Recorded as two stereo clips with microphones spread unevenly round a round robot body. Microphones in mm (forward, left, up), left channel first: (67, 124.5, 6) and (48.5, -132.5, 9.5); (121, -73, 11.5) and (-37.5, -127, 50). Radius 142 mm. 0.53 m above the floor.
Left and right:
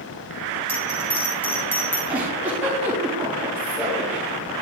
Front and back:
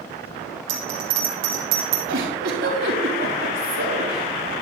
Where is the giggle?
Straight behind, 4.5 m.